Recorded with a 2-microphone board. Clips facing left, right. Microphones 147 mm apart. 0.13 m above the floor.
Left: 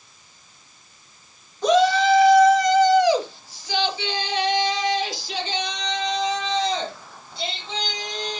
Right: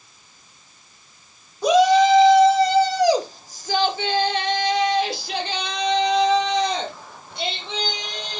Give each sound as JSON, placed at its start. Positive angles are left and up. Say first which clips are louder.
{"t": 1.6, "sound": "a shout", "louder": "right 3 dB", "side_deg": -10, "distance_m": 2.5}